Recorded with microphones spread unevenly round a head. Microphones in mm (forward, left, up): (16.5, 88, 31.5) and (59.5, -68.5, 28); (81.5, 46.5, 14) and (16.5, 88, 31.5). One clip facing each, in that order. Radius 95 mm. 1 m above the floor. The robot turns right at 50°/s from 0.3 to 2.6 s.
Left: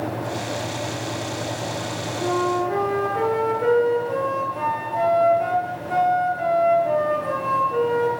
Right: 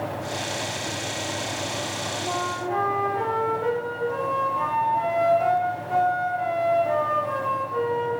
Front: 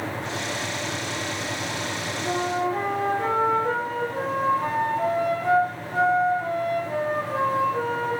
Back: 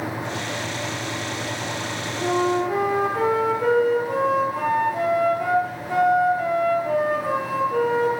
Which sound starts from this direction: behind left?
A flute, at 2.2 s.